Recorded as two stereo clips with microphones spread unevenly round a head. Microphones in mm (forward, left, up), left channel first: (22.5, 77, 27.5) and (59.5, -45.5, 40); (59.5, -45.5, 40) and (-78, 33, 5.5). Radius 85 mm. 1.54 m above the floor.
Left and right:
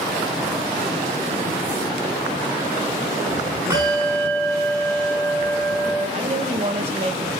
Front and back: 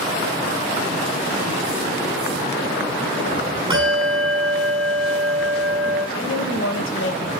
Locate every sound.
3.7 s a bell: 150° right, 8.5 m
6.1 s a woman speaking: 30° right, 2 m